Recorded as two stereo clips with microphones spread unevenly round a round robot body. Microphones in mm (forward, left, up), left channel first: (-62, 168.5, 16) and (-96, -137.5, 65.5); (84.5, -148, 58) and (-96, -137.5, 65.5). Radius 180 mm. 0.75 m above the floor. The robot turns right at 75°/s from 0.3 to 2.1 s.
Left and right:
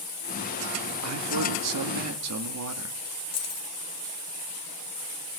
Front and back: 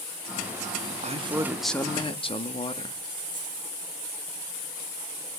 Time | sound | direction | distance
1.0 | a man speaking | 140° right | 1.8 m
3.3 | keys jangling | 120° left | 1.6 m